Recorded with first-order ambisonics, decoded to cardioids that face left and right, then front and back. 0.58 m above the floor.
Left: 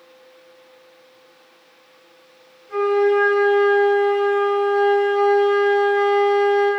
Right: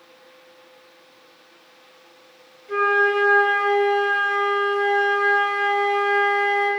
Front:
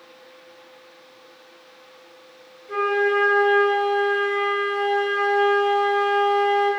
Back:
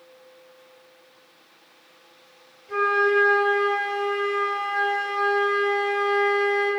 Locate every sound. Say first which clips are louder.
2.7 s a flute: left 1 dB, even; 65° right, 2.0 m